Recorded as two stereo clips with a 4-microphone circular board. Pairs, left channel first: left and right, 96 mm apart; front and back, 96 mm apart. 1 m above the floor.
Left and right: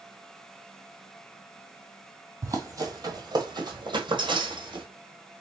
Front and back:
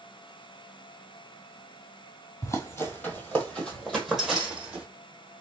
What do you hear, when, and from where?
2.4 s running footsteps: 45° right, 1.4 m; by 4.8 s 105° right, 1.7 m